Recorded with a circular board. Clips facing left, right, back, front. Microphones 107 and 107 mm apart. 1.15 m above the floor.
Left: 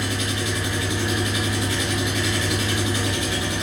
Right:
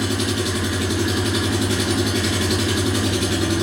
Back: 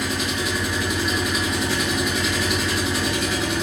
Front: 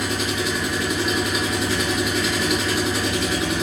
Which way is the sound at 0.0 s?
90° right.